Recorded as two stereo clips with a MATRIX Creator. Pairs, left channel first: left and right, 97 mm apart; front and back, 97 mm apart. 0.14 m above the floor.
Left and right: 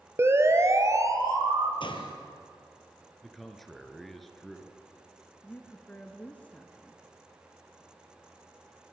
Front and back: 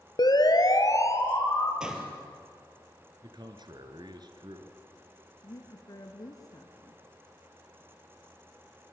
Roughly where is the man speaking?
Behind.